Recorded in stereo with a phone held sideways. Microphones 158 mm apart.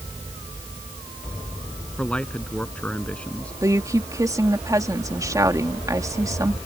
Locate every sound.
2.0 s a man speaking: 5° left (ahead or behind)
3.6 s a woman speaking: 20° right (ahead or behind)